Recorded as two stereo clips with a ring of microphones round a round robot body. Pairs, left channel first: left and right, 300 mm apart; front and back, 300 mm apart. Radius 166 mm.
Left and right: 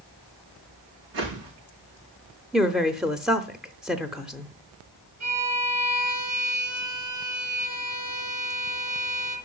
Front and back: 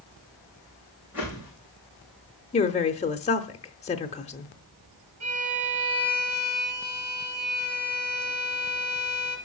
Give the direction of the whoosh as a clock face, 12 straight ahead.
3 o'clock.